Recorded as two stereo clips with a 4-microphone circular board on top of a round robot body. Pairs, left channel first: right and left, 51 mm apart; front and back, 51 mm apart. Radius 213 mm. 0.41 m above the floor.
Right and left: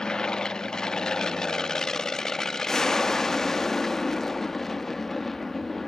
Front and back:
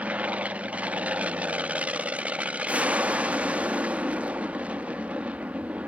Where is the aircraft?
150° right; by 5.9 s 170° right.